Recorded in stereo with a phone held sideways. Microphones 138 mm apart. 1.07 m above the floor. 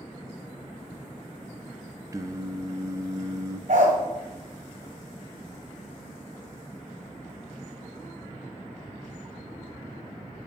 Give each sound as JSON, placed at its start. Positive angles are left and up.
{"t": 2.1, "sound": "singing", "side_deg": -25, "distance_m": 0.5}
{"t": 3.7, "sound": "a dog barking", "side_deg": -65, "distance_m": 1.9}